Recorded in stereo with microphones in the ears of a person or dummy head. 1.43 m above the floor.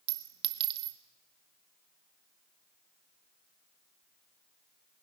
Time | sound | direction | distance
0.1 | a clink | 30° right (ahead or behind) | 0.7 m